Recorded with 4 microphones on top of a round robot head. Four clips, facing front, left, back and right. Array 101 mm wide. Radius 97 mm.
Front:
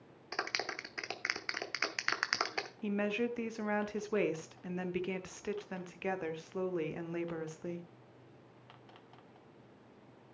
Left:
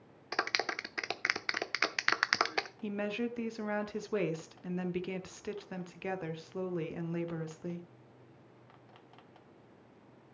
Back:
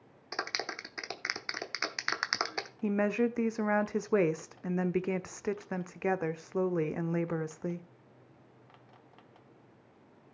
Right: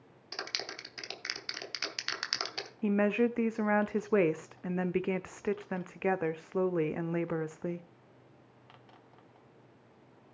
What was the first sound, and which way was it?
A clap, 100° left.